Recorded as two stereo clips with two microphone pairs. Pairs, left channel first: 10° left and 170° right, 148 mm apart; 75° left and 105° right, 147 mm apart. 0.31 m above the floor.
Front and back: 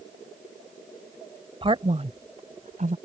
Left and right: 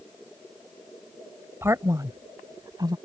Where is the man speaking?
165° right.